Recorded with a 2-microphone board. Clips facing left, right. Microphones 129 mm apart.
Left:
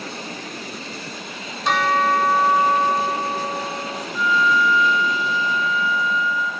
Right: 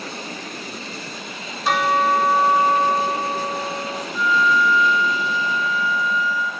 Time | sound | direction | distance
1.6 | a bell | centre (ahead or behind) | 1.2 m
4.1 | a flute | 25° left (ahead or behind) | 1.3 m